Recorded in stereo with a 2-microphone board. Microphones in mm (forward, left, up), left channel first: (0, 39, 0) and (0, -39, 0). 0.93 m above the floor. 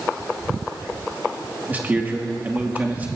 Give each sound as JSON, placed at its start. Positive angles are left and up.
{"t": 1.7, "sound": "a man speaking", "side_deg": -20, "distance_m": 2.0}